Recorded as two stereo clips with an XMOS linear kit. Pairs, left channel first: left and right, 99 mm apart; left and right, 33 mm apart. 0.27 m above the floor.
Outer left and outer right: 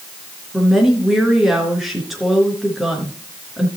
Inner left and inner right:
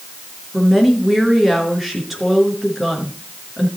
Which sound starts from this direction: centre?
A woman speaking, at 0.5 s.